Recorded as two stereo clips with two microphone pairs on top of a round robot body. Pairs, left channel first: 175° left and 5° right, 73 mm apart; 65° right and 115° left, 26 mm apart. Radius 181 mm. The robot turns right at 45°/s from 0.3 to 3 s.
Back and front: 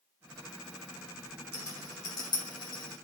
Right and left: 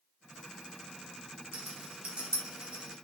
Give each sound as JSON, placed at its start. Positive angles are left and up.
{"t": 1.5, "sound": "a rattle", "azimuth_deg": 120, "distance_m": 2.5}